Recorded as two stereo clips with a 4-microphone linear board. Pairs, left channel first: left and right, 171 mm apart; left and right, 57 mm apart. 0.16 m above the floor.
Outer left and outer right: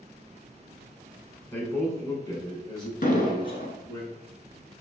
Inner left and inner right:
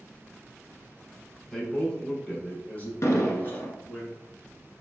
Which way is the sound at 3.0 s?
55° left (ahead or behind).